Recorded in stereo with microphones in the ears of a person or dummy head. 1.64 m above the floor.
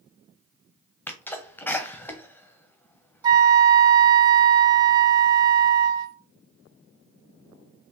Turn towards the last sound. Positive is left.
turn(degrees=-25)  # may be behind; listen again after turning